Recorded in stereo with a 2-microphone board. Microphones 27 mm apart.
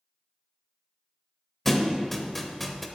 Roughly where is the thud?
Centre.